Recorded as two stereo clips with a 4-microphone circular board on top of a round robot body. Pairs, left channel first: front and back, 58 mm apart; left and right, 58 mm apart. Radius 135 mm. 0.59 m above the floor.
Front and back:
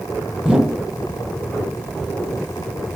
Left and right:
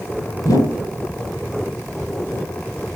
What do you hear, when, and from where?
0.4 s a whoosh: 100° left, 5.5 m